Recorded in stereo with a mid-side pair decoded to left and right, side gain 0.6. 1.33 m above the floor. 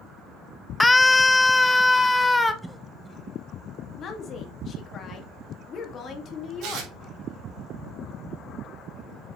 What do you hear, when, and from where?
0.8 s a scream: 15° left, 0.8 m; by 2.5 s 10° left, 1.6 m
2.6 s a cough: 5° right, 1.0 m
4.0 s a woman speaking: 45° left, 2 m
6.6 s tearing paper: 70° right, 3 m